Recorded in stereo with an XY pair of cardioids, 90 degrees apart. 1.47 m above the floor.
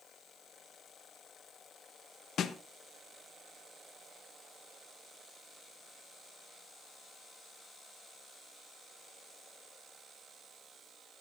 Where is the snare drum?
70° left, 1.3 m.